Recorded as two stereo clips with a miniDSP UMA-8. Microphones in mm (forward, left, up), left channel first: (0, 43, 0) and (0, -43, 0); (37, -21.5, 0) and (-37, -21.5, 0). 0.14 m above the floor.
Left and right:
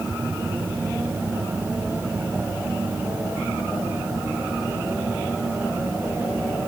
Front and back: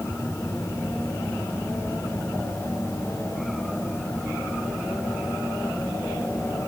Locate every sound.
Only background noise.